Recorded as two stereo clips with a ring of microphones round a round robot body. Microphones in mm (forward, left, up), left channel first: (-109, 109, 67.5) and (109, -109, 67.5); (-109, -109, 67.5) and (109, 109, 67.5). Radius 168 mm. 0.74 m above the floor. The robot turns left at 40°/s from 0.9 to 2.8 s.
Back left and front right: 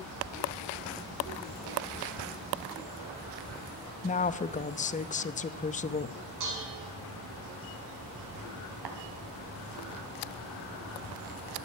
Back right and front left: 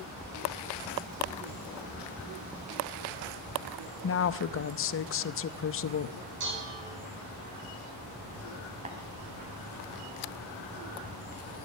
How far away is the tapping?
About 2 m.